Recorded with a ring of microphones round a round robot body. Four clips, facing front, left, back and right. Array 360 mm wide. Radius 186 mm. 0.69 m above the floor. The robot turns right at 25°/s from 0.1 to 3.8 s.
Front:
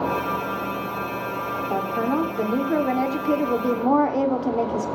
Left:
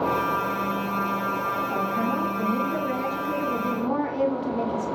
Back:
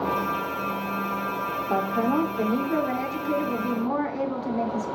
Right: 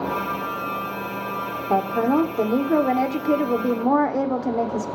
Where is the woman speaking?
95° right, 2.5 m; by 4.9 s 45° right, 2.5 m.